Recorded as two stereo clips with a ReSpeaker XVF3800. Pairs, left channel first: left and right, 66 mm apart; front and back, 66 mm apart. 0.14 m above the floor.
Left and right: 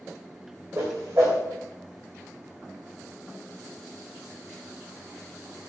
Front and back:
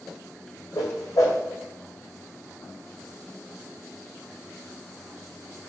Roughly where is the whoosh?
Ahead right.